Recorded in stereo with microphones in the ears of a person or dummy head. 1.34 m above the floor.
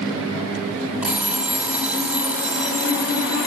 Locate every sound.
1.0 s an alarm clock: 5° right (ahead or behind), 1.7 m